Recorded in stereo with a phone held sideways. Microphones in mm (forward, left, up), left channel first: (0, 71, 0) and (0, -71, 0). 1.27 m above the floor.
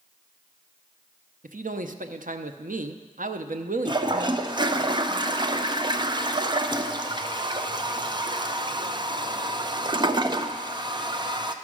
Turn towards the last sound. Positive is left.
turn(degrees=-35)  # may be behind; listen again after turning